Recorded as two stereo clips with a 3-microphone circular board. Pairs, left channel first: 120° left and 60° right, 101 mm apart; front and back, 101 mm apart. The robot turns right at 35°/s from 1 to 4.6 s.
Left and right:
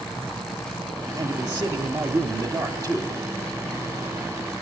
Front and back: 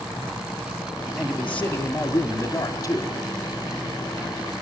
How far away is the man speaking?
About 1.8 m.